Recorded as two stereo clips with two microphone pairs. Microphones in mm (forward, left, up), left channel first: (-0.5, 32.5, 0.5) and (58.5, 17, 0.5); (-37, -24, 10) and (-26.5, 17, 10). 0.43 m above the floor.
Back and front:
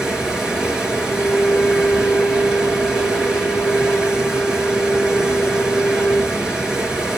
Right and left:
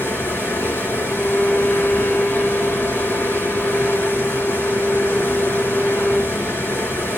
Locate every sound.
0.0 s running water: 100° right, 4 m
1.0 s a violin: 105° right, 3 m